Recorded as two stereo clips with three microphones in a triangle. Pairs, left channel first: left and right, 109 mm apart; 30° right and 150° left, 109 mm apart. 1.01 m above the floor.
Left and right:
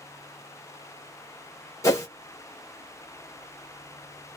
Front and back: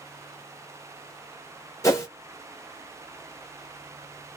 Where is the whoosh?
30° left, 1.1 m.